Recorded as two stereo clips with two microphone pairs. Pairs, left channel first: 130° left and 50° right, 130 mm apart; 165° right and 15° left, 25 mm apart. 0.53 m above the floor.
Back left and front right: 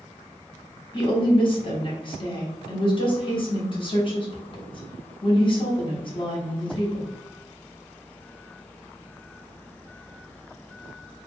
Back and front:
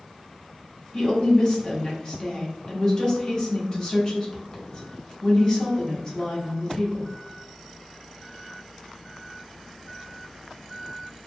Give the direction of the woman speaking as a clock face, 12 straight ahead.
7 o'clock.